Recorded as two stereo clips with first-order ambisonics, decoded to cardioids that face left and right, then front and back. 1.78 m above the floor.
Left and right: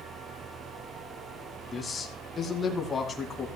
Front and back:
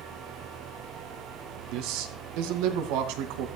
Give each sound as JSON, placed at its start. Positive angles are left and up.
{"t": 1.7, "sound": "a man speaking", "azimuth_deg": 165, "distance_m": 2.5}